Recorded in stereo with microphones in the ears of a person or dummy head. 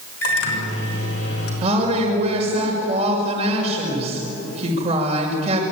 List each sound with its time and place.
0.2 s a microwave: 85° left, 6 m
1.6 s a woman speaking: 35° right (ahead or behind), 6 m